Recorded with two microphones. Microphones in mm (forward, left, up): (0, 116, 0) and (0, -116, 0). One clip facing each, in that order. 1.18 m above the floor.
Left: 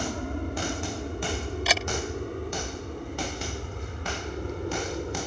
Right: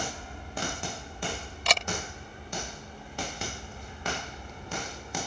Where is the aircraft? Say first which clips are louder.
Left 9 dB; 65° left (ahead or behind).